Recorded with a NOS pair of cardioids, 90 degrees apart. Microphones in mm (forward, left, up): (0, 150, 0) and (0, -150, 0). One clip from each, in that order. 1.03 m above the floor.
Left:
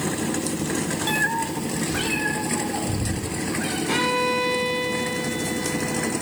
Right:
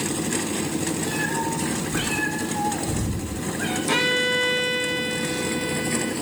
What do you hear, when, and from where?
1.1 s a cat meowing: 55° left, 0.6 m; by 3.8 s 10° right, 2.5 m
3.9 s a violin: 25° right, 0.9 m